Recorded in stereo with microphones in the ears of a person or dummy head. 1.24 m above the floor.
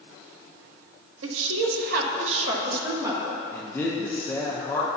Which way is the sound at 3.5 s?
10° left (ahead or behind).